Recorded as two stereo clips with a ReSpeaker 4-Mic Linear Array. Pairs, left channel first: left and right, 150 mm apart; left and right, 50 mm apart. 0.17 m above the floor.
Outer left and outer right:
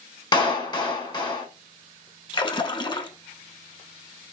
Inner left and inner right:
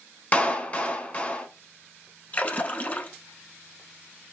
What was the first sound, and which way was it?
A clap, 30° left (ahead or behind).